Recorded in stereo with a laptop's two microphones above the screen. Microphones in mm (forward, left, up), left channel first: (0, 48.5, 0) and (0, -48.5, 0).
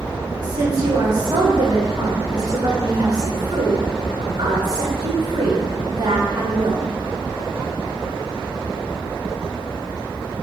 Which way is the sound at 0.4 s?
45° right (ahead or behind).